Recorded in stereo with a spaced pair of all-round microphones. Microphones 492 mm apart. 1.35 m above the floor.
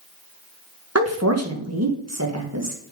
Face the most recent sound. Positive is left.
turn(degrees=-30)  # may be behind; listen again after turning